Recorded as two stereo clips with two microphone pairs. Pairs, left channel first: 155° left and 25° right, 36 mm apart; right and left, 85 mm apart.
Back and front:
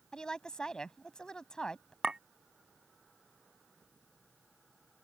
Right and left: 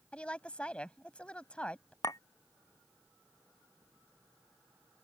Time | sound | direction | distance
0.1 | a woman speaking | 155° right | ?
2.0 | a clink | 80° right | ?